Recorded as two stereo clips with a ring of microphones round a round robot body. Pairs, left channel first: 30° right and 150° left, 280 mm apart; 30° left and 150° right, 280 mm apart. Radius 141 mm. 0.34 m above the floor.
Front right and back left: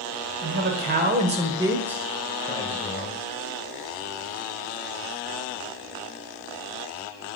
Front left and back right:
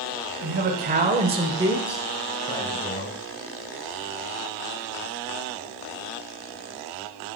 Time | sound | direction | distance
0.4 | a man speaking | straight behind | 1.6 m